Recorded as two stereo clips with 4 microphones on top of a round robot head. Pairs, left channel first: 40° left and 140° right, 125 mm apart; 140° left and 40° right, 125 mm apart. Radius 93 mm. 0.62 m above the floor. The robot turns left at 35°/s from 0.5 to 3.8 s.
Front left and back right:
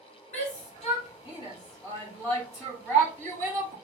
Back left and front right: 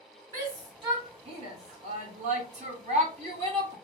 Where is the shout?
25° left, 2.5 m; by 3.8 s 90° right, 2.5 m.